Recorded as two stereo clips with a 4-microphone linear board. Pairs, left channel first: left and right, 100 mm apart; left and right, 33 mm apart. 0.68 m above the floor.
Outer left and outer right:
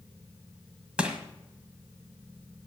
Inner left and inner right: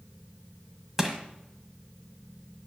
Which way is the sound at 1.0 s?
10° right (ahead or behind).